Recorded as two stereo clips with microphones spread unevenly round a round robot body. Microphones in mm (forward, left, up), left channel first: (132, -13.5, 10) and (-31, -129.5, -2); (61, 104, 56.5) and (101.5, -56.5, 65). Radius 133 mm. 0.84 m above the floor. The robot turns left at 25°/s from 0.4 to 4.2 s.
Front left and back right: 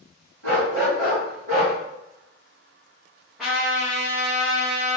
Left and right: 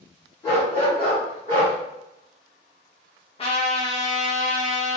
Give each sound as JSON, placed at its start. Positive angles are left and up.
{"t": 0.4, "sound": "a dog barking", "azimuth_deg": -175, "distance_m": 1.5}
{"t": 3.4, "sound": "a trumpet", "azimuth_deg": 130, "distance_m": 0.9}